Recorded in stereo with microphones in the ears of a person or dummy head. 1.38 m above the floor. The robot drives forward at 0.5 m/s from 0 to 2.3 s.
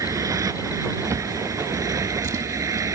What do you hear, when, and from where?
0.0 s a motorcycle: 15° right (ahead or behind)
1.1 s a drawer: 15° right (ahead or behind)